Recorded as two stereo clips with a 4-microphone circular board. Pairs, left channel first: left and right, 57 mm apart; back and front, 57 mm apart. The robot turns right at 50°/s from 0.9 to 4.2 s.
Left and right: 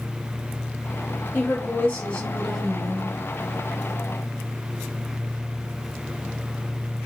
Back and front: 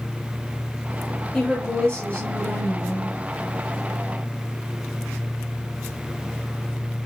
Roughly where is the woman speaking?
Left.